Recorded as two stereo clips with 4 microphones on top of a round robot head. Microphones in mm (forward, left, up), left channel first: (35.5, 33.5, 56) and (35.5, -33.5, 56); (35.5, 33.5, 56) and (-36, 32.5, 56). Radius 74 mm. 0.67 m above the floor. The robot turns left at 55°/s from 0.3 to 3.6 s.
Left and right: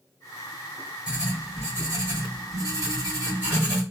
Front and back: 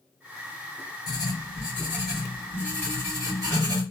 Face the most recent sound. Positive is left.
turn(degrees=-160)